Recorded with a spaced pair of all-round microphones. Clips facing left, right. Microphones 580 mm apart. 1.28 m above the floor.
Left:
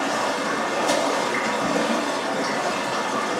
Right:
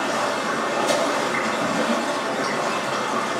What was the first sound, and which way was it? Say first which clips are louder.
Running water: even; 35° right (ahead or behind).